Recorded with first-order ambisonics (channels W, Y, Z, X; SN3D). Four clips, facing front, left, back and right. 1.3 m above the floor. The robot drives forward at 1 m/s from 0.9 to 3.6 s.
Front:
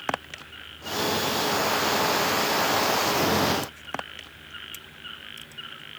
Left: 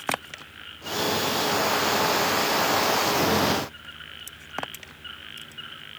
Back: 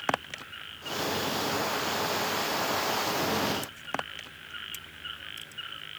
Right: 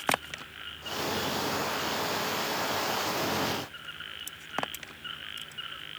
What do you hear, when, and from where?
Only background noise.